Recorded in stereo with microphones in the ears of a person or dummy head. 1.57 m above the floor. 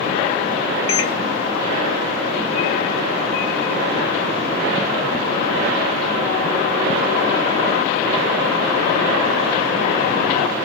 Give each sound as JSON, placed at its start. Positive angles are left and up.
{"t": 0.9, "sound": "a microwave", "side_deg": 80, "distance_m": 1.7}